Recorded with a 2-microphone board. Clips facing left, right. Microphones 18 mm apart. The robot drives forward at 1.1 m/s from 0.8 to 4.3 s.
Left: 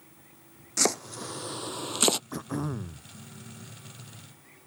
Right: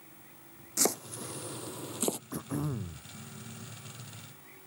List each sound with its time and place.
0.8 s chopping: 35° left (ahead or behind); by 2.2 s 80° left
2.3 s throat clearing: 30° left (ahead or behind); by 3.0 s 40° left (ahead or behind)